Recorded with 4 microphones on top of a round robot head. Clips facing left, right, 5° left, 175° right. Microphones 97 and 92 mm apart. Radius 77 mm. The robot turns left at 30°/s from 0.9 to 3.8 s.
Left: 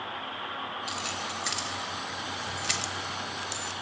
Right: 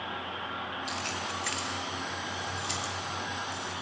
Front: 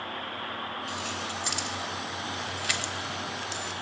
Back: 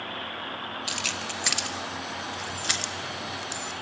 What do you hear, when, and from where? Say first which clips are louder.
0.9 s keys jangling: even, even; straight behind, 0.7 m; by 3.7 s 95° left, 0.7 m